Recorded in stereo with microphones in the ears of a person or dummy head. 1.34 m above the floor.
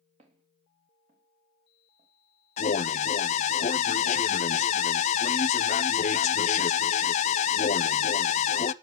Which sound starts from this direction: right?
Footsteps, at 0.2 s.